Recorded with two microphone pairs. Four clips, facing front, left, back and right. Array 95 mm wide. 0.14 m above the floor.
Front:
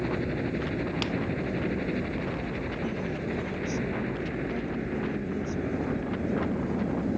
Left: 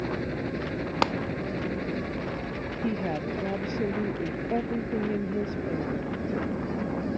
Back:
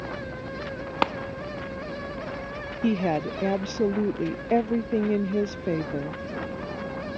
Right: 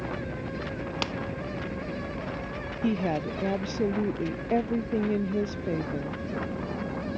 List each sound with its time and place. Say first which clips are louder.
0.0 s a helicopter: left 3 dB, front 5 dB; 40° left
1.0 s a clap: left 10 dB, back 7 dB; 140° left
2.8 s a woman speaking: right 3 dB, back 12 dB; 170° right